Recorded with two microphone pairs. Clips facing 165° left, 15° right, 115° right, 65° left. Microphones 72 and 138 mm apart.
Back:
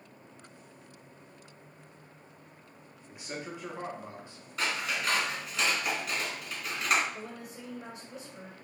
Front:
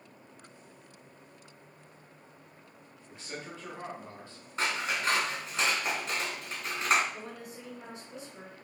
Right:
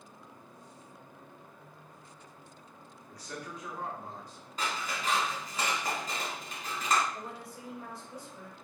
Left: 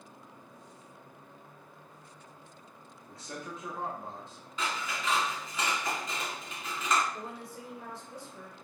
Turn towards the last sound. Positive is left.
turn(degrees=30)